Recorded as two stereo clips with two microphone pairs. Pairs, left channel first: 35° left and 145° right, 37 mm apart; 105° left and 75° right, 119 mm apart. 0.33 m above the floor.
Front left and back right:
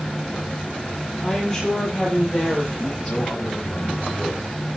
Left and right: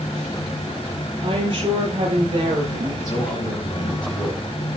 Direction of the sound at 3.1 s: 65° left.